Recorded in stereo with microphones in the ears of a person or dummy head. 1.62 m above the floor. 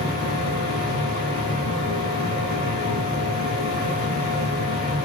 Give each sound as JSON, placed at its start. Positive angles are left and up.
{"t": 0.0, "sound": "a machine running", "side_deg": 45, "distance_m": 2.5}